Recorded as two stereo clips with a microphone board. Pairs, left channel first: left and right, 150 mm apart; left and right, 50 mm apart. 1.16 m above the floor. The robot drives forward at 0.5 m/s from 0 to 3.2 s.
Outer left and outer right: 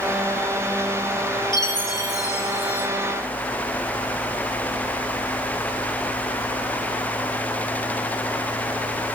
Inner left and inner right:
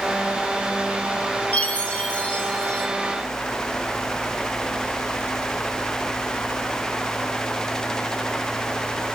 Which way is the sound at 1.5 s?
25° left (ahead or behind).